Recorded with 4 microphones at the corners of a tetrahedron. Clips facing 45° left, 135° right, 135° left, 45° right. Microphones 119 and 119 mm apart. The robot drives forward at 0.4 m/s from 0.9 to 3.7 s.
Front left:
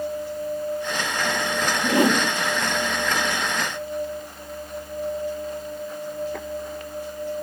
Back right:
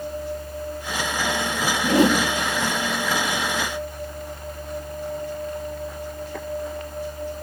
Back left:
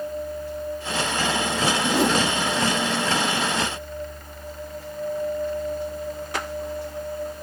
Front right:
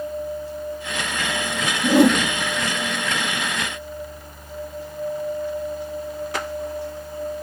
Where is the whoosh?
75° right, 4.5 m.